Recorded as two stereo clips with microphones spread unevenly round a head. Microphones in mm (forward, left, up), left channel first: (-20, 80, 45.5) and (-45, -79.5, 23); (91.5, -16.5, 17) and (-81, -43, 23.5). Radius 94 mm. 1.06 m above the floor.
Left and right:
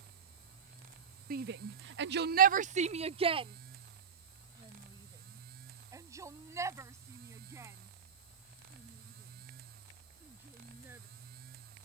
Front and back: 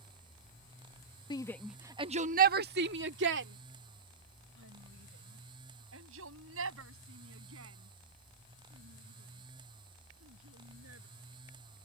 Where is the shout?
60° right; by 11.0 s 175° right.